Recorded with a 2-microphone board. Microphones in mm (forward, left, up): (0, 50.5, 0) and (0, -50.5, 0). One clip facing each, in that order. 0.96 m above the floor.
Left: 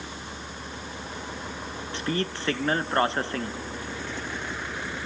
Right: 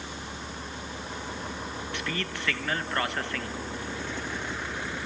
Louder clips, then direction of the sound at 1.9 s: Left 7 dB; 30° left (ahead or behind).